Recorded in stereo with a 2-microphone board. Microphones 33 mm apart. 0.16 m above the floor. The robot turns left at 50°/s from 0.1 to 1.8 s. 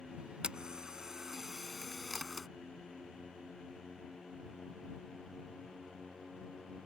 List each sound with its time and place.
0.4 s a camera shutter: 30° right (ahead or behind); by 2.5 s centre (ahead or behind)